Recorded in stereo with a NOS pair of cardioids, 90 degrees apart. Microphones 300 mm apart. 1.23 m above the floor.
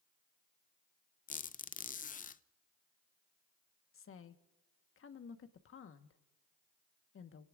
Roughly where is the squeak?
Ahead left.